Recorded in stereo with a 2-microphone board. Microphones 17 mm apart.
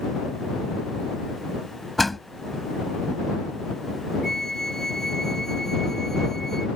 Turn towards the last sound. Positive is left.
turn(degrees=20)  # may be behind; listen again after turning